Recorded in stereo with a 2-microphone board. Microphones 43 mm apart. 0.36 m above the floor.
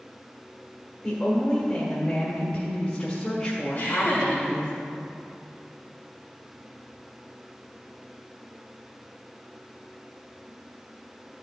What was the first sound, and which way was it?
A woman speaking, 25° left (ahead or behind).